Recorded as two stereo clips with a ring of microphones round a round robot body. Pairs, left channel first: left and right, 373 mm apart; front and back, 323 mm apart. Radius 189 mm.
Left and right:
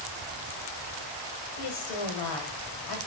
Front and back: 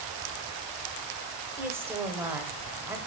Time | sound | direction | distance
1.6 | a woman speaking | 95° left | 1.8 m